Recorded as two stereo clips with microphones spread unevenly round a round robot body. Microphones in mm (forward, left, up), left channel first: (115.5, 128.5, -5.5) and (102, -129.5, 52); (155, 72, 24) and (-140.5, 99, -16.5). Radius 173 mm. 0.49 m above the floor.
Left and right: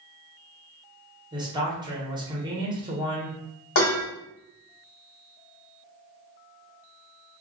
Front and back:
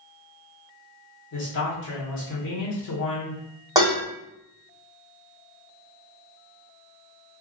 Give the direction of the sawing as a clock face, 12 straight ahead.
I don't hear sawing.